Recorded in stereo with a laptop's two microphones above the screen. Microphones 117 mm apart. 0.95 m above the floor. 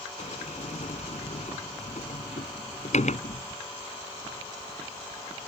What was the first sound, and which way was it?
A sliding door, 80° left.